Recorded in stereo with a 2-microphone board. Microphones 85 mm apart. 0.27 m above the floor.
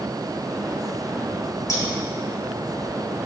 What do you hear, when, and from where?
1.7 s scissors: 45° left (ahead or behind), 2 m